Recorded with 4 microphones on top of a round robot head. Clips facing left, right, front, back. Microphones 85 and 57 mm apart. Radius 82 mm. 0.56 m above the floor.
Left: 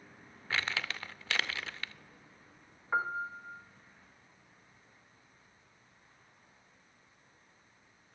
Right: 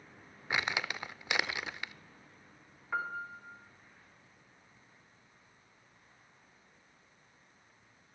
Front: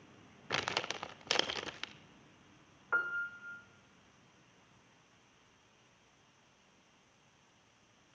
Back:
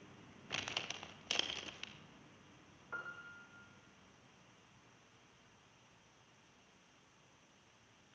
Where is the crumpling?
15° right, 0.8 m.